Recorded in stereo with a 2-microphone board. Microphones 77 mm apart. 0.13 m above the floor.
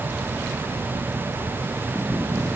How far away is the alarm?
No alarm in this recording.